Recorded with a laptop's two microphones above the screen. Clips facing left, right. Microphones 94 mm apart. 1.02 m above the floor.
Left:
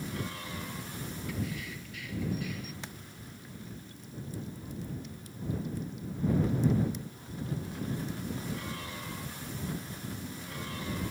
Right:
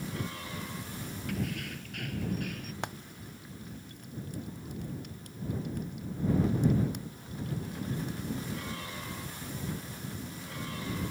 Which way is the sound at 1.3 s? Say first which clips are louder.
Right 3 dB; 60° right (ahead or behind).